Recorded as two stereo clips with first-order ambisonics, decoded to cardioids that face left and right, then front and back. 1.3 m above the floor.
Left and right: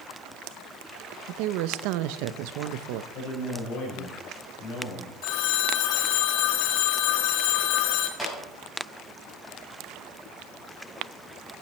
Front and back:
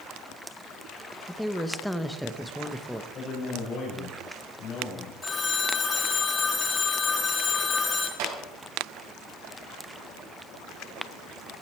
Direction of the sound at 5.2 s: 70° left.